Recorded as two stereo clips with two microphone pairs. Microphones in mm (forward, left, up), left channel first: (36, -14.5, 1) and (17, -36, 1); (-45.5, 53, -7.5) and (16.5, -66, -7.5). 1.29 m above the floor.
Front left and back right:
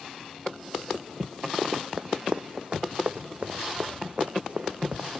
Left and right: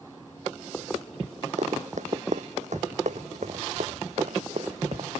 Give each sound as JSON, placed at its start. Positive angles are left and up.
{"t": 1.6, "sound": "running footsteps", "azimuth_deg": -75}